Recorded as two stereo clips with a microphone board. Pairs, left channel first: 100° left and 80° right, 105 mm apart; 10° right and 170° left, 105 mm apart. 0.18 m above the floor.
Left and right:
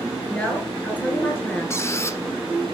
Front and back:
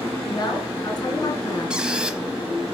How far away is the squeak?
About 0.9 m.